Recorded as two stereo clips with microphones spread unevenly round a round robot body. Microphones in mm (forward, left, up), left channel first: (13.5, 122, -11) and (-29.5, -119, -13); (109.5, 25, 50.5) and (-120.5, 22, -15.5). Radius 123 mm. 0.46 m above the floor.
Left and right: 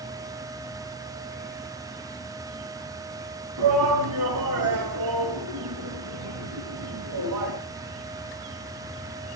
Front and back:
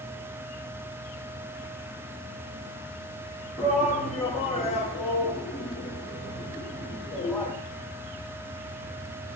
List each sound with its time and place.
3.6 s a shout: 95° right, 5 m